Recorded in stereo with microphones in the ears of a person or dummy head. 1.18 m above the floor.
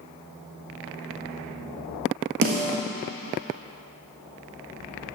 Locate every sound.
2.4 s a snare drum: 50° right (ahead or behind), 1.6 m